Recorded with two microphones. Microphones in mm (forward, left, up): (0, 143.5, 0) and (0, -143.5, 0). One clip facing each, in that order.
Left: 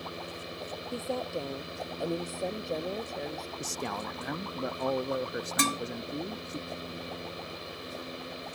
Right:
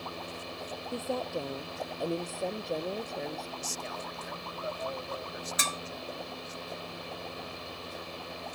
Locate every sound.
0.9 s a woman speaking: centre (ahead or behind)
3.6 s a man speaking: 70° left (ahead or behind)
5.6 s dishes clattering: 65° left (ahead or behind)